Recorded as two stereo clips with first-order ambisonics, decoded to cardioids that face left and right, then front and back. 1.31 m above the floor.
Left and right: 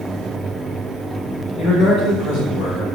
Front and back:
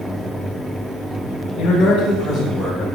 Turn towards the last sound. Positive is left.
turn(degrees=80)